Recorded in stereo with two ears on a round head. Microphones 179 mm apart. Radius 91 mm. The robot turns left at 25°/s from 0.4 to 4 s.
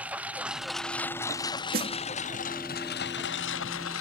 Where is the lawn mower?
170° right; by 4.0 s 100° left.